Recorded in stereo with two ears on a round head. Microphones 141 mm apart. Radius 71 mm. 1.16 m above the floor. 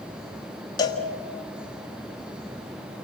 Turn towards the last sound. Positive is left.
turn(degrees=25)  # may be behind; listen again after turning